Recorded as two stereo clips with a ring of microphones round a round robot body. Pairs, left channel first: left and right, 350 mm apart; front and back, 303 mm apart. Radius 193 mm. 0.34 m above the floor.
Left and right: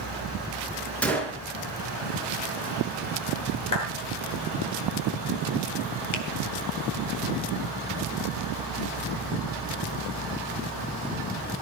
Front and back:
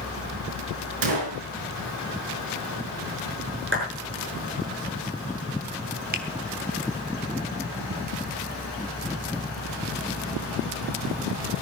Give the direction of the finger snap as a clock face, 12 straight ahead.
8 o'clock.